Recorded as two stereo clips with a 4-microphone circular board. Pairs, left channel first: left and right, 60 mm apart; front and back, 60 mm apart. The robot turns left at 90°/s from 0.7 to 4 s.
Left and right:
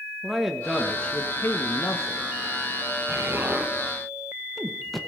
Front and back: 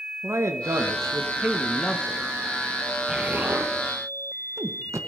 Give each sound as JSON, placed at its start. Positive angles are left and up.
{"t": 0.2, "sound": "a man speaking", "azimuth_deg": -175, "distance_m": 1.3}
{"t": 3.1, "sound": "an explosion", "azimuth_deg": -100, "distance_m": 1.1}